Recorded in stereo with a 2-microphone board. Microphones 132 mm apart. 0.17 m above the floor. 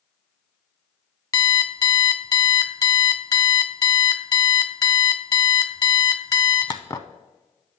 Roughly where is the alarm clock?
Left.